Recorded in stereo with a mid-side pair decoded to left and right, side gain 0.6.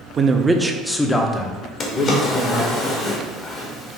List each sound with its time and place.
0.2 s a man speaking: 35° right, 0.5 m; by 2.8 s 50° left, 1.3 m
1.8 s a drawer: 45° left, 1.1 m